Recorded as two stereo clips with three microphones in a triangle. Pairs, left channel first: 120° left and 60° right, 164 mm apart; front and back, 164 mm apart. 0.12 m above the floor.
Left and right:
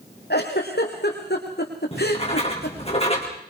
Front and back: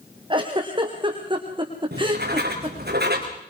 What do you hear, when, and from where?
0.3 s a giggle: 120° left, 3 m
1.9 s writing: 170° left, 3.5 m